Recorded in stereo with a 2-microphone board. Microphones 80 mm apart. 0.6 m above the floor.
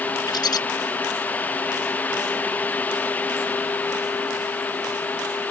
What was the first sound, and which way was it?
A bird, 60° left (ahead or behind).